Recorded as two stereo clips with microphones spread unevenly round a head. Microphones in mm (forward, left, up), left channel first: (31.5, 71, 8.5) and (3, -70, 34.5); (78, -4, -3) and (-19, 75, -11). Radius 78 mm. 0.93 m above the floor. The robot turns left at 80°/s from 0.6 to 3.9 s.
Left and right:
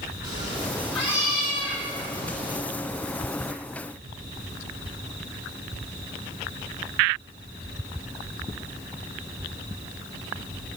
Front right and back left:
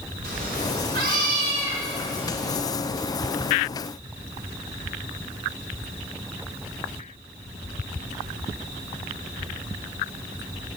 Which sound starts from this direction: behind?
A cat meowing, at 0.2 s.